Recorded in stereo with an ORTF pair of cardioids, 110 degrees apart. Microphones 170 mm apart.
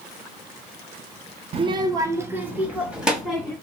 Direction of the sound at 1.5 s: 35° right.